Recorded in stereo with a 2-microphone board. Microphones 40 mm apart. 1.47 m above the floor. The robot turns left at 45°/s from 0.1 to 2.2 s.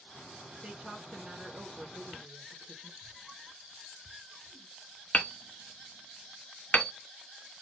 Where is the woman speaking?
Straight ahead, 1.6 m; by 2.9 s 70° right, 1.6 m.